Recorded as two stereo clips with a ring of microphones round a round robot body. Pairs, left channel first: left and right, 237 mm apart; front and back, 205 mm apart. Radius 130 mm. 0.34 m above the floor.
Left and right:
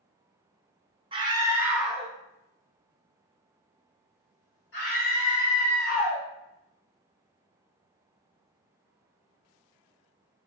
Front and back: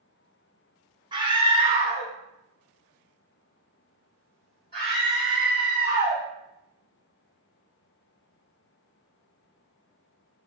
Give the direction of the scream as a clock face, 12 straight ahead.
5 o'clock.